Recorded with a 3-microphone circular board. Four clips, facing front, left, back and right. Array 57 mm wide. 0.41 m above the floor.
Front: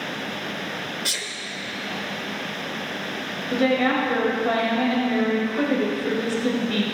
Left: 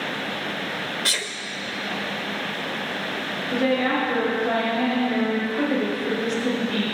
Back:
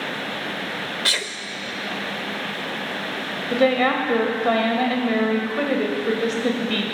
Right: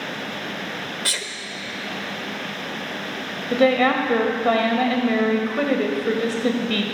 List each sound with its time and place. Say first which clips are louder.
1.1 s a sneeze: left 1 dB, back 6 dB; 175° left, 1.0 m
3.5 s a woman speaking: right 5 dB, back 2 dB; 125° right, 1.9 m